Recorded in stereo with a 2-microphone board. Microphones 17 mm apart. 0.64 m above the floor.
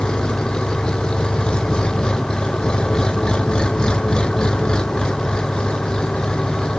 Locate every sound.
0.0 s an engine running: 45° left (ahead or behind)